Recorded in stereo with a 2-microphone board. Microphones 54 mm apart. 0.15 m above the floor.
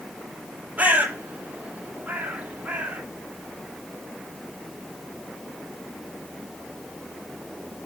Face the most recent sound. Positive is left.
turn(degrees=-30)  # may be behind; listen again after turning